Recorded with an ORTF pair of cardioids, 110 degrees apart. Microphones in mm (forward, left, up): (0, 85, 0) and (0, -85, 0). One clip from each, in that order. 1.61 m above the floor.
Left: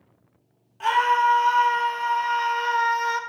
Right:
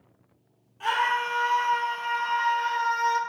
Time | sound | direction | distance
0.8 | a scream | 35° left | 2 m